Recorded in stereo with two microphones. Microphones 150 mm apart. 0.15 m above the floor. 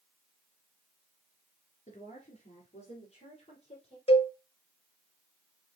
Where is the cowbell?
40° left (ahead or behind), 0.6 m.